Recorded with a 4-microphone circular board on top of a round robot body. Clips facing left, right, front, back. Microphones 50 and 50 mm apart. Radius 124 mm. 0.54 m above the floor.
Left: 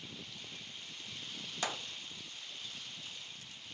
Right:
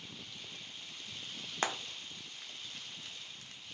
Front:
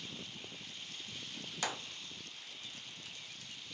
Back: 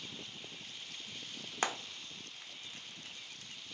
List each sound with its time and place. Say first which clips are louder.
1.6 s frying: right 3 dB, back 4 dB; 130° right, 0.9 m